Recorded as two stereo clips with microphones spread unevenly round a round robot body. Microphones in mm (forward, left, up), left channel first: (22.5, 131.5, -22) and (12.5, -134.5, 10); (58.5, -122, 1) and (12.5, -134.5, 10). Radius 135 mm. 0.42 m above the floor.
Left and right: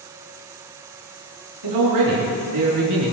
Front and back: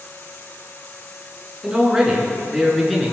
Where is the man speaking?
90° right, 5 m; by 3.1 s 75° right, 5.5 m.